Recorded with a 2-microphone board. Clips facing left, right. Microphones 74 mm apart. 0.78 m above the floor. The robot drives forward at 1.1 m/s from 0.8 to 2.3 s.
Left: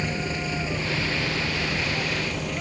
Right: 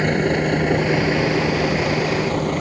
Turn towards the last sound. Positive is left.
turn(degrees=-50)  # may be behind; listen again after turning